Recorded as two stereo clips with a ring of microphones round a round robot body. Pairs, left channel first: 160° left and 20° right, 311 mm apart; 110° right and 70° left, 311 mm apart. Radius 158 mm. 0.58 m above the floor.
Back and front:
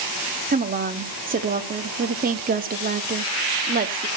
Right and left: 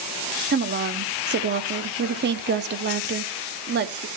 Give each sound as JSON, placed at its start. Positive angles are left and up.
{"t": 0.5, "sound": "a woman speaking", "azimuth_deg": 30, "distance_m": 1.0}